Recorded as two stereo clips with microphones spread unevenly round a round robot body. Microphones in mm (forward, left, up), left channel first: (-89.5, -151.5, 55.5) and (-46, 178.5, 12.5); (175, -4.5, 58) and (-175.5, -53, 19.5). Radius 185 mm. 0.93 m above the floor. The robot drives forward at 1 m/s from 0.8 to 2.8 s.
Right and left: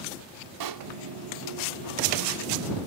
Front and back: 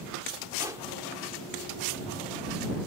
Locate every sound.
0.6 s a pop: 105° left; by 0.9 s 110° left